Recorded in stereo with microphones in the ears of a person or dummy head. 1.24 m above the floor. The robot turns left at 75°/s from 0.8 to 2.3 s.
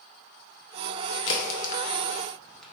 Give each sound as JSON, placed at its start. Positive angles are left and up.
{"t": 1.3, "sound": "a crack", "side_deg": 60, "distance_m": 0.6}